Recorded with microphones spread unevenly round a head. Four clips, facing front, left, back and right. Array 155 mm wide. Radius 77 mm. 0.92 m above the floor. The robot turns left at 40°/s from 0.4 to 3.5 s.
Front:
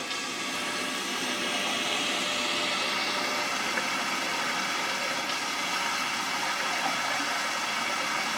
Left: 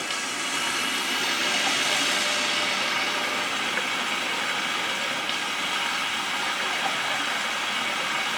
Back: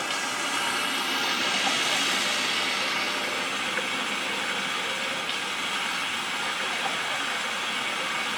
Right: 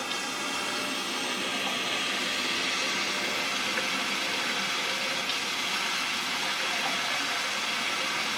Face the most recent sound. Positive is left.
turn(degrees=45)